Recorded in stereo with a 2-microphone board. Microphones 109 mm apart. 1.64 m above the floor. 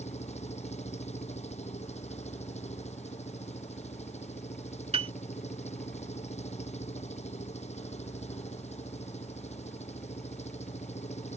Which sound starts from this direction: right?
A piano, at 4.9 s.